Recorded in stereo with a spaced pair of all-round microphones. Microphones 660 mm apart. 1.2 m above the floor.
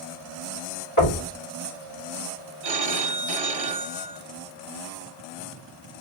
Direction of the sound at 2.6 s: 65° right (ahead or behind).